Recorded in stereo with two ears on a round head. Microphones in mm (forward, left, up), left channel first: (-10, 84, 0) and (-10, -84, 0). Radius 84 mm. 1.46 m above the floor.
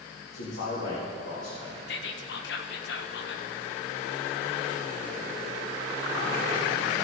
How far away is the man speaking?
About 2.5 m.